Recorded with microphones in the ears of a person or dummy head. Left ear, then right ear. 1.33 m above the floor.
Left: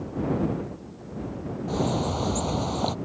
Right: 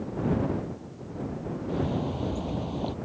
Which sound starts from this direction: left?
A bird, at 1.7 s.